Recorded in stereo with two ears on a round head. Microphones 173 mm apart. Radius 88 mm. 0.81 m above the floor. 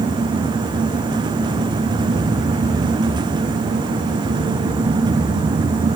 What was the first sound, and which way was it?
Only background noise.